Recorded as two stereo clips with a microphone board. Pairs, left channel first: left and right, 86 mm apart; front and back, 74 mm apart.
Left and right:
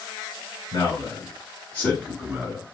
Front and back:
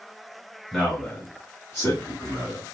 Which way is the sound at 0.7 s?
85° left.